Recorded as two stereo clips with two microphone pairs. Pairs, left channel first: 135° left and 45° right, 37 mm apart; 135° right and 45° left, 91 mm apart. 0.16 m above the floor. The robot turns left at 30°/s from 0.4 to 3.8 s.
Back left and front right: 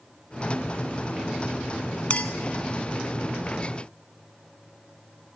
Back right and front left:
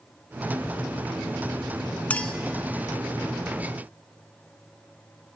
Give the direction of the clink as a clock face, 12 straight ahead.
7 o'clock.